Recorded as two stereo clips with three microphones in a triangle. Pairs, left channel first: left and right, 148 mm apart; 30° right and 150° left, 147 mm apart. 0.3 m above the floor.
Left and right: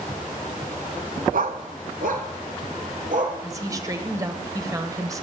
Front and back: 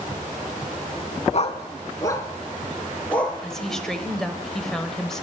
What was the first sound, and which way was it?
A dog barking, 70° right.